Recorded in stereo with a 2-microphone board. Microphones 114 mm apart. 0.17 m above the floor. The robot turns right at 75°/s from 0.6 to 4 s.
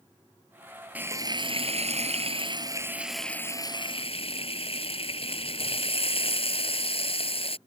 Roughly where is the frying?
Behind.